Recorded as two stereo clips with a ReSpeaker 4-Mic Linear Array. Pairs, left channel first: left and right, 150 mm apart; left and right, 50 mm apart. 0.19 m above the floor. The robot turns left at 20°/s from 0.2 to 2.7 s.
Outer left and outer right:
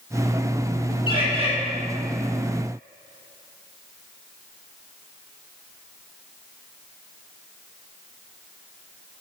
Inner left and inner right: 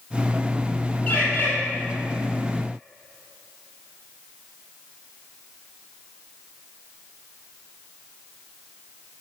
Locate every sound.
1.1 s a bird: 30° left (ahead or behind), 3.5 m; by 1.5 s 40° left (ahead or behind), 3.5 m